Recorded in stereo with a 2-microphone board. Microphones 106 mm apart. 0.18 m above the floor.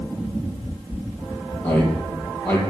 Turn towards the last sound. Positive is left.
turn(degrees=20)  # may be behind; listen again after turning